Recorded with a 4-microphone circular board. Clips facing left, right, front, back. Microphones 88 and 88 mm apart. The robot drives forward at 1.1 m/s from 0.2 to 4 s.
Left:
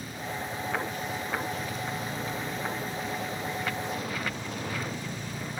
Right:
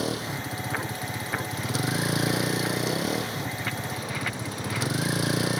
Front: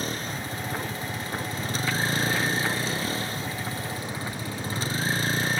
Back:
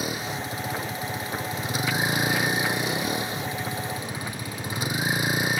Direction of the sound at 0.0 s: 100° right.